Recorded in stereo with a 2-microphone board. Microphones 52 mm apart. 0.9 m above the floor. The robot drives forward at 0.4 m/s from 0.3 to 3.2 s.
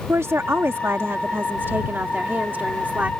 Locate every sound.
0.1 s a woman speaking: 55° right (ahead or behind); by 3.1 s 30° right (ahead or behind)